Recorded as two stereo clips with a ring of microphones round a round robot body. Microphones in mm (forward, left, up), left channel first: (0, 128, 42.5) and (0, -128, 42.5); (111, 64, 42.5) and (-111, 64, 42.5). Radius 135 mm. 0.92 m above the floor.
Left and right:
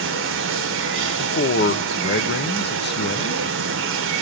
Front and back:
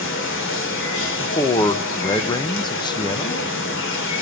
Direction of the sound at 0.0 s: 45° right.